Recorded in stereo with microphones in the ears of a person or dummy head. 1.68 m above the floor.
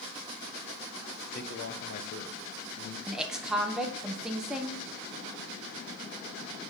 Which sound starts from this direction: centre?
A woman speaking, at 3.1 s.